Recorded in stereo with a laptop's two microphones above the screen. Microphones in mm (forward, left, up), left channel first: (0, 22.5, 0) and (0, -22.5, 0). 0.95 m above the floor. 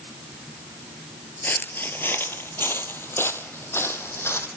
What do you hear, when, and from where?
1.4 s footsteps: 45° left (ahead or behind), 1.2 m; by 4.5 s 65° left (ahead or behind), 2.5 m